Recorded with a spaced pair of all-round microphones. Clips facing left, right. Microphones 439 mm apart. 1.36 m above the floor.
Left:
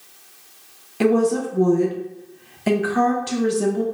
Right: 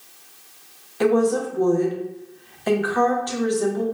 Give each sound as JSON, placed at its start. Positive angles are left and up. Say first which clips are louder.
{"t": 1.0, "sound": "a woman speaking", "louder": "left 1 dB", "side_deg": 45, "distance_m": 0.8}